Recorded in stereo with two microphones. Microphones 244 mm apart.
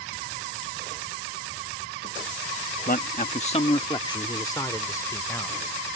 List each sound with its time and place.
2.9 s a man speaking: 35° left (ahead or behind); by 5.6 s 10° left (ahead or behind)